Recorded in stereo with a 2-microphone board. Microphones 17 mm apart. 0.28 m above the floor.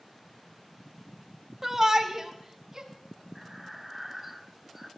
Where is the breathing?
10° right (ahead or behind), 0.7 m.